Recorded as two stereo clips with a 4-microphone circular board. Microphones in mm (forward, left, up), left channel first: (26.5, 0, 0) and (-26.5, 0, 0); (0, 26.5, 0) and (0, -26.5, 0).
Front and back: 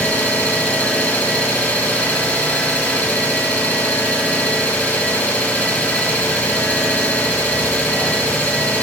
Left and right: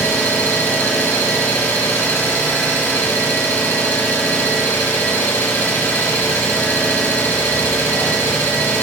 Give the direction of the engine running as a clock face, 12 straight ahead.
10 o'clock.